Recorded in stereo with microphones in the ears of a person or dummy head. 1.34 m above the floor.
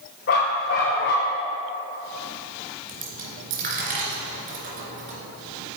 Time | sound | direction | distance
0.3 | a dog barking | 40° left (ahead or behind) | 1.4 m
2.9 | a dropped coin | 50° right (ahead or behind) | 2.5 m